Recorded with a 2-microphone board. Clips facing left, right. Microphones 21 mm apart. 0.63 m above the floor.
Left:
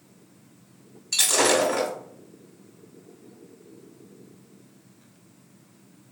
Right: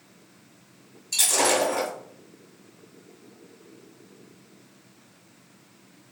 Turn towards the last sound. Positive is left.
turn(degrees=20)  # may be behind; listen again after turning